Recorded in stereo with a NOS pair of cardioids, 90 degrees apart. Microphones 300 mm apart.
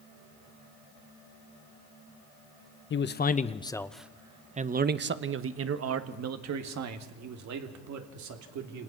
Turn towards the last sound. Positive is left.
turn(degrees=-70)